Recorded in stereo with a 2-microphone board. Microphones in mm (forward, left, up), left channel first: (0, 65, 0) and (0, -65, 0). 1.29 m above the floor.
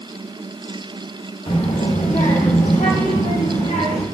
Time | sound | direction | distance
1.5 | a child speaking | 50° left (ahead or behind) | 1.3 m